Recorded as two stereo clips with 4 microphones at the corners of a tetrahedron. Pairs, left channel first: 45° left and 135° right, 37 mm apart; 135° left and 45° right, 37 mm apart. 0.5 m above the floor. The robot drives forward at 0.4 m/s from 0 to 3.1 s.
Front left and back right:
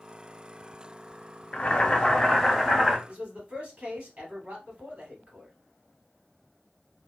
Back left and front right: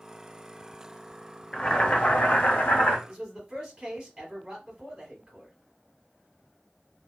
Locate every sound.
1.5 s boiling: 80° left, 0.6 m; by 3.0 s 140° left, 0.8 m
3.1 s a man speaking: 105° right, 2 m